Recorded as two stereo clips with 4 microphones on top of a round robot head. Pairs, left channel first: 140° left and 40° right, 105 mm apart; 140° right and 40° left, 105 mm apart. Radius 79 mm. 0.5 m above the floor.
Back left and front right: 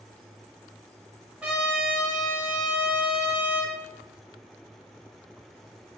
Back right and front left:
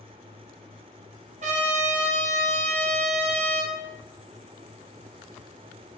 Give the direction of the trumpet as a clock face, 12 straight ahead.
11 o'clock.